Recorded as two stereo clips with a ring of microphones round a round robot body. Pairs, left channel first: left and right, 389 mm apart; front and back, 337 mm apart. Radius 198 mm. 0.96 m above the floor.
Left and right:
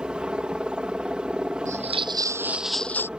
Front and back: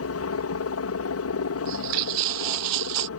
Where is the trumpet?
I don't hear a trumpet.